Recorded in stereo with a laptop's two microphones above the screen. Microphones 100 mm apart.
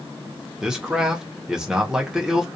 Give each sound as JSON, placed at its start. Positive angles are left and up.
{"t": 0.6, "sound": "a man speaking", "side_deg": -5, "distance_m": 0.6}